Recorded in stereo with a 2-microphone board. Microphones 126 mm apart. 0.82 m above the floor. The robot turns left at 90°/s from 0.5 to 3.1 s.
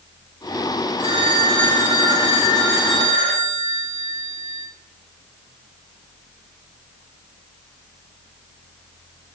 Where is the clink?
I don't hear a clink.